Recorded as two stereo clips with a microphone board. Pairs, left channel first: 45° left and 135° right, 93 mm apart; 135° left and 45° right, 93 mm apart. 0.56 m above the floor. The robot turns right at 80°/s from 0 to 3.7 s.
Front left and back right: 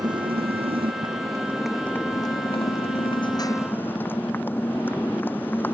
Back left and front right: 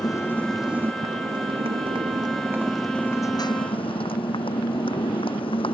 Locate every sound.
0.0 s a motorcycle: straight behind; by 5.7 s 115° left